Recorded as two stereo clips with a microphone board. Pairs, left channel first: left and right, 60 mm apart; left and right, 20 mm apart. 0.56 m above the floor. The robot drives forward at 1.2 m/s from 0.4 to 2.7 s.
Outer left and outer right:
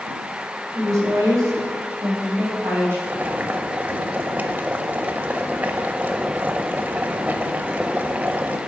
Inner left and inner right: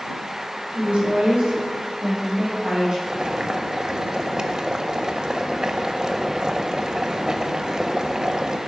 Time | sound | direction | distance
0.7 | a woman speaking | 70° right (ahead or behind) | 2.5 m
3.1 | boiling | 30° right (ahead or behind) | 0.5 m